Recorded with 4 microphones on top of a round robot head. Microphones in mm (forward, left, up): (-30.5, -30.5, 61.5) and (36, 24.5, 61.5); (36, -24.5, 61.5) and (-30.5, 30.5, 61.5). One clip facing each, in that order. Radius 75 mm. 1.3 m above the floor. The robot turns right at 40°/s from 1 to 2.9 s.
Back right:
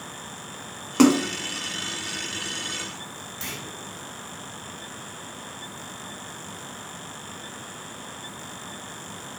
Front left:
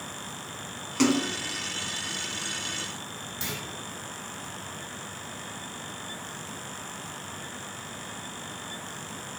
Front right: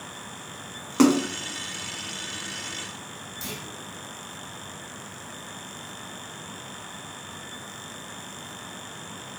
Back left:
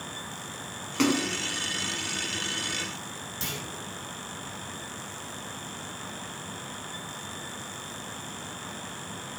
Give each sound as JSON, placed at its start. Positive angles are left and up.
{"t": 1.0, "sound": "a splash", "azimuth_deg": -95, "distance_m": 0.6}
{"t": 3.4, "sound": "a clunk", "azimuth_deg": 125, "distance_m": 8.0}